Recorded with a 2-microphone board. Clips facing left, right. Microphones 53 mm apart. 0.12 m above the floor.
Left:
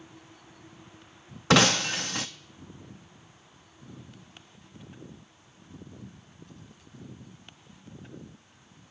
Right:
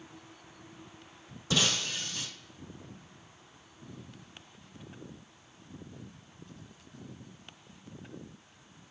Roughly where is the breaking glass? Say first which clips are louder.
Left 9 dB; left.